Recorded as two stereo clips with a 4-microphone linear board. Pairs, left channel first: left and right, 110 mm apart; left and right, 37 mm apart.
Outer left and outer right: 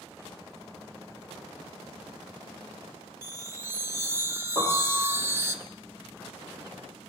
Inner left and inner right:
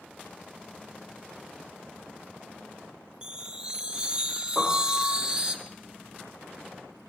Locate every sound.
3.2 s a chime: 25° right (ahead or behind), 1.0 m
4.5 s a piano: 40° left (ahead or behind), 4.5 m